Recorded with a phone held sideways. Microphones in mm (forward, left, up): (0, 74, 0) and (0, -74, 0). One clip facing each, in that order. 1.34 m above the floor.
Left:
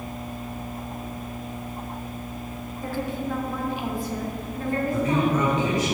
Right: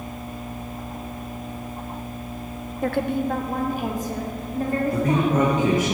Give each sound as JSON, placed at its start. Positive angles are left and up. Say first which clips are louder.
{"t": 2.8, "sound": "a woman speaking", "louder": "right 6 dB", "side_deg": -70, "distance_m": 0.6}
{"t": 4.9, "sound": "a man speaking", "louder": "right 1 dB", "side_deg": -55, "distance_m": 1.2}